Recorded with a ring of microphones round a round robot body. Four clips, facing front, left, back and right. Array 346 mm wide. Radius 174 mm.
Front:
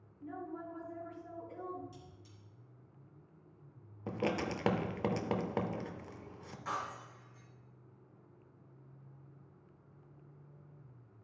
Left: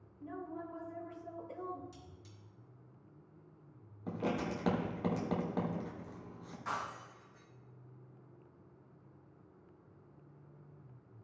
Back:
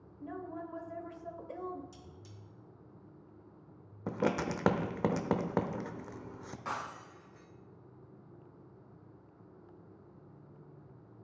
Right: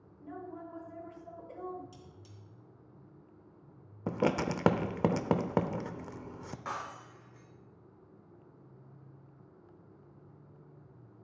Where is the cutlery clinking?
160° right, 2.5 m.